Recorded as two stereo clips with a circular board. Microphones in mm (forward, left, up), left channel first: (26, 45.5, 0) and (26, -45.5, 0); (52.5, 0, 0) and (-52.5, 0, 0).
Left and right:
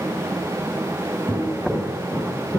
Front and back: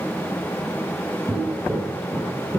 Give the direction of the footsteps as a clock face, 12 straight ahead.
5 o'clock.